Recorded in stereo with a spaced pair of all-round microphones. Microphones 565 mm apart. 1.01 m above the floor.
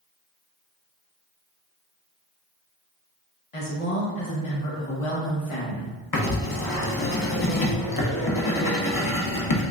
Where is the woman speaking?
65° left (ahead or behind), 1.1 m.